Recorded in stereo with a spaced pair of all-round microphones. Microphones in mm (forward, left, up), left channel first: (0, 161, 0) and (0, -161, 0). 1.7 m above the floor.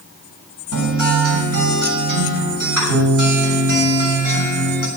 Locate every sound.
0.7 s a guitar: 85° right, 6 m